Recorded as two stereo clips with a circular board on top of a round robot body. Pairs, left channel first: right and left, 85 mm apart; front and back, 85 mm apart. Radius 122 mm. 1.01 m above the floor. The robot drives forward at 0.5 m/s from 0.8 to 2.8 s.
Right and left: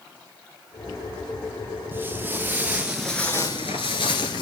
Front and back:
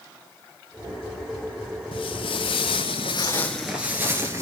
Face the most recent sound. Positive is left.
turn(degrees=-125)